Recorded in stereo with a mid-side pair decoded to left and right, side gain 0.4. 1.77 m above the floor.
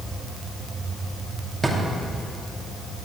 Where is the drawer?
20° right, 2.5 m.